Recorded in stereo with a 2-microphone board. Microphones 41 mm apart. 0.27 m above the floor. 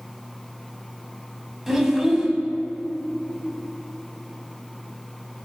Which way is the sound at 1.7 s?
5° right (ahead or behind).